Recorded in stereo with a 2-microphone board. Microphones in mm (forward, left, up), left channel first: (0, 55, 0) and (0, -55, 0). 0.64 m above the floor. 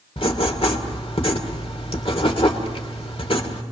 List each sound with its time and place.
0.2 s writing: 55° left (ahead or behind), 2 m